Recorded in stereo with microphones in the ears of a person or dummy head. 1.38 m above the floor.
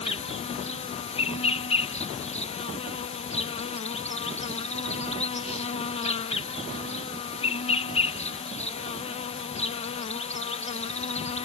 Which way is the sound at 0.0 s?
35° left (ahead or behind).